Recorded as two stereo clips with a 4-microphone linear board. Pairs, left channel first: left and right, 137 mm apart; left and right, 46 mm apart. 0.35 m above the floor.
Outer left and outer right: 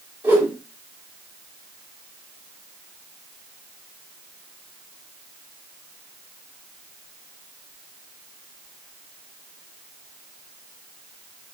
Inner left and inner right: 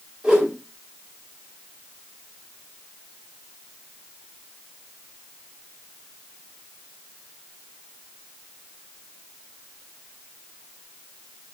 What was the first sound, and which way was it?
A whoosh, 15° right (ahead or behind).